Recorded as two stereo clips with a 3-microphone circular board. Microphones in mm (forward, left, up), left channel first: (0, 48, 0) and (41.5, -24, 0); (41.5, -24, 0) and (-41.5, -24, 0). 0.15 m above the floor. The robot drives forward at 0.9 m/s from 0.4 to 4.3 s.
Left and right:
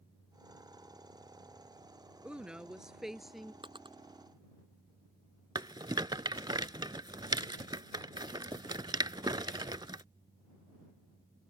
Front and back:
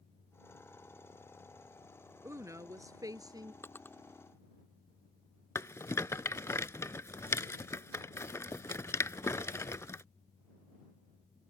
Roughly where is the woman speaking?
Behind right.